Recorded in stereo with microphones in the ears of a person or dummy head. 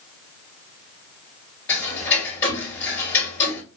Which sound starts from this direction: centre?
Ticking, at 1.7 s.